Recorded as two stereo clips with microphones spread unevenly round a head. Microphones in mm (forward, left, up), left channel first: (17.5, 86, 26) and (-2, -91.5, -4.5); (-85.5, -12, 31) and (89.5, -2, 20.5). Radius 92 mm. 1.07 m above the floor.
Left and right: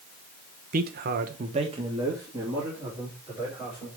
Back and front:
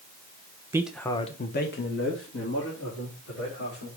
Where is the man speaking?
70° right, 1.0 m; by 3.9 s straight behind, 4.5 m.